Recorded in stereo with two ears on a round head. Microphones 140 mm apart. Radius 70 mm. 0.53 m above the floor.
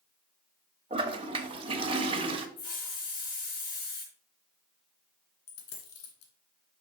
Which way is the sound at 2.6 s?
60° left (ahead or behind).